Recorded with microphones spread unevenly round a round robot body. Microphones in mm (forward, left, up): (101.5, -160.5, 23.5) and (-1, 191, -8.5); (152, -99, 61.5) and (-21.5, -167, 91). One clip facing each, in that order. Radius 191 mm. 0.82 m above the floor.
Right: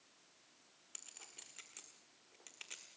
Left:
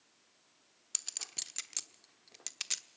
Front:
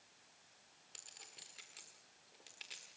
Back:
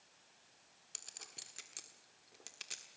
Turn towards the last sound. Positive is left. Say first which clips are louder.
# left 6 dB, back 4 dB
turn(degrees=140)